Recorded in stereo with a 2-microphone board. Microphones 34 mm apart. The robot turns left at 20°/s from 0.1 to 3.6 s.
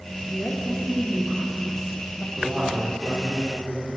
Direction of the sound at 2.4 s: 30° right (ahead or behind).